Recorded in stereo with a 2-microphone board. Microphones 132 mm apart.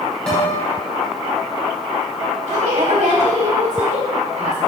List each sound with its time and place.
0.3 s a guitar: 5° left (ahead or behind), 4 m
2.5 s a woman speaking: 65° right (ahead or behind), 3.5 m